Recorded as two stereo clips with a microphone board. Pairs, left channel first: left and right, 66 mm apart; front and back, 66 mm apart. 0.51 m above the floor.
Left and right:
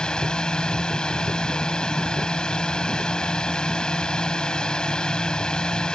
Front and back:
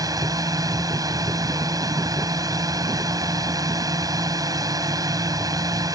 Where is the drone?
165° left.